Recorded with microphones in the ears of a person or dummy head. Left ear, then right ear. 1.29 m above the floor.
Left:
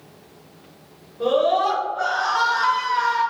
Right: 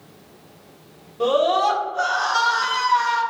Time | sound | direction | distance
1.2 | a scream | 85° right | 1.6 m